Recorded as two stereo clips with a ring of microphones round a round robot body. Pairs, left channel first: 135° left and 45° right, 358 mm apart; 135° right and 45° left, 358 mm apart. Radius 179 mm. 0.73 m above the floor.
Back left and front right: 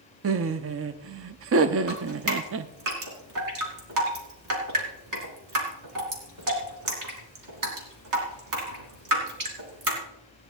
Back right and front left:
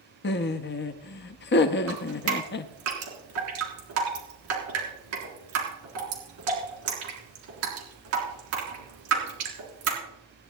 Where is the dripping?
5° right, 3.5 m.